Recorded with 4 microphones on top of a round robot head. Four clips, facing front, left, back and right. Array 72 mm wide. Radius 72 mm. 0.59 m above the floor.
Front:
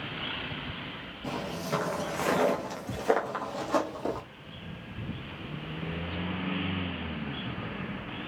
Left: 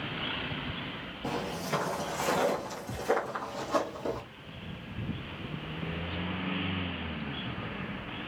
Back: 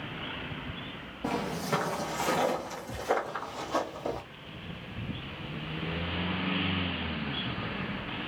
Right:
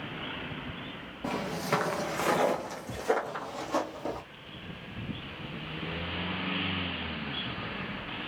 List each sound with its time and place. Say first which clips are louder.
1.2 s footsteps: right 3 dB, back 3 dB; 135° right, 0.7 m; by 4.2 s 5° right, 1.5 m